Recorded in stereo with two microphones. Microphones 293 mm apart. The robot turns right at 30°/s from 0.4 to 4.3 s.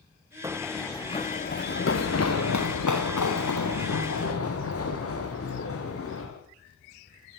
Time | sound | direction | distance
0.4 | running footsteps | 10° right (ahead or behind) | 3 m